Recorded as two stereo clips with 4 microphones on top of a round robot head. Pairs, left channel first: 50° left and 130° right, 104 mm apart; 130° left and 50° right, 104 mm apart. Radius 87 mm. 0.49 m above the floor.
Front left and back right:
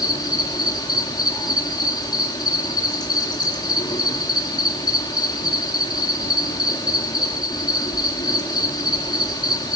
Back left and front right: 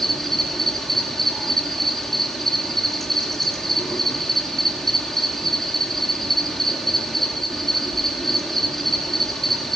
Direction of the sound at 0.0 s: 45° left.